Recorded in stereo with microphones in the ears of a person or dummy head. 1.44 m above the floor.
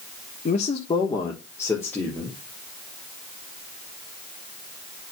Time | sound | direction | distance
0.5 | a man speaking | 40° left (ahead or behind) | 0.9 m